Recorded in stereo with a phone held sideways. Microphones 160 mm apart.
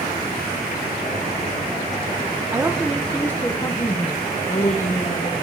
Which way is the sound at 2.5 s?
20° right (ahead or behind).